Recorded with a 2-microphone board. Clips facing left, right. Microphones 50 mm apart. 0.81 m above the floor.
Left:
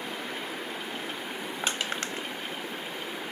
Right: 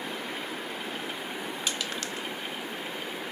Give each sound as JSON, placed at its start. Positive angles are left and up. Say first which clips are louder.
{"t": 1.6, "sound": "crushing", "louder": "left 5 dB", "side_deg": 30, "distance_m": 0.9}